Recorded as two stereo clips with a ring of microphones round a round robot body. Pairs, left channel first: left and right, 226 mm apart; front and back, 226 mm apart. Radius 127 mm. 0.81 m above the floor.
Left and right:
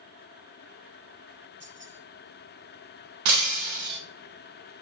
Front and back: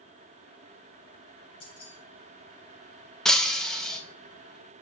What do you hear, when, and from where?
1.6 s keys jangling: 25° right, 4 m
3.2 s breaking glass: 90° right, 1.0 m